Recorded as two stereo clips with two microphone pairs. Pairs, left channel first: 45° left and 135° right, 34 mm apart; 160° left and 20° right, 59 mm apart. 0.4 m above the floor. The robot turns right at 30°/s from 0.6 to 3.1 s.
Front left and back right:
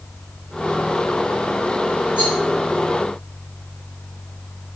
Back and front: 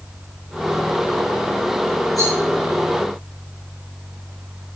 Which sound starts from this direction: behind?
A rattle, at 2.2 s.